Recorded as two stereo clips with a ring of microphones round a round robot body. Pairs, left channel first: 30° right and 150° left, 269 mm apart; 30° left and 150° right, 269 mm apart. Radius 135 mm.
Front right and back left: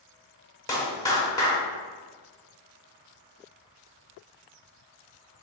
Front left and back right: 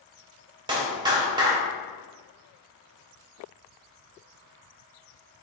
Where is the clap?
95° right, 0.9 m.